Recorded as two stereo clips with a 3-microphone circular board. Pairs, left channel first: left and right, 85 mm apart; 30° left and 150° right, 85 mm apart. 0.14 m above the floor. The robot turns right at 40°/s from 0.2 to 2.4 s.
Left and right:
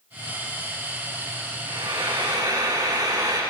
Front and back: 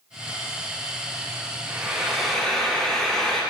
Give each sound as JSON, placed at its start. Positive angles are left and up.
{"t": 1.7, "sound": "frying", "azimuth_deg": -80, "distance_m": 7.0}